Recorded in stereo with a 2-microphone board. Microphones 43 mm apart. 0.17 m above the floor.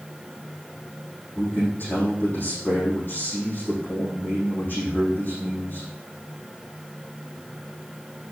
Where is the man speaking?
40° left (ahead or behind), 5.5 m.